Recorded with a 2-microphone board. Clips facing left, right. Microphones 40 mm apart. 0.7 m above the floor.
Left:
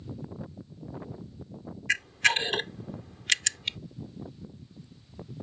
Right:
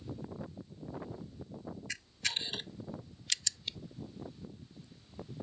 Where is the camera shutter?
70° left (ahead or behind).